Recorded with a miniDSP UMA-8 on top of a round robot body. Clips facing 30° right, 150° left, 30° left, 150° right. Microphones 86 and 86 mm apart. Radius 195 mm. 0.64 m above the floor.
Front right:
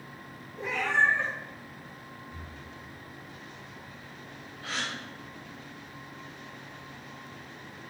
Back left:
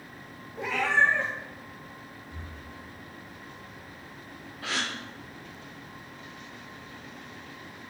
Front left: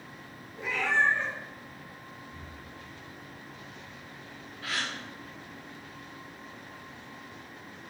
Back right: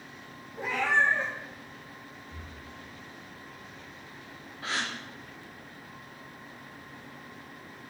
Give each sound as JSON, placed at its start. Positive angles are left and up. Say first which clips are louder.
{"t": 0.6, "sound": "a cat meowing", "louder": "back left 2 dB, back right 1 dB", "azimuth_deg": 160, "distance_m": 1.1}
{"t": 2.3, "sound": "breathing", "louder": "back left 1 dB, even", "azimuth_deg": -160, "distance_m": 3.0}
{"t": 4.6, "sound": "a gasp", "louder": "back left 3 dB, back right 1 dB", "azimuth_deg": 145, "distance_m": 0.7}